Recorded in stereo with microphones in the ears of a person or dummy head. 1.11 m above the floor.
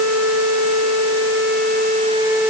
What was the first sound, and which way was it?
Only background noise.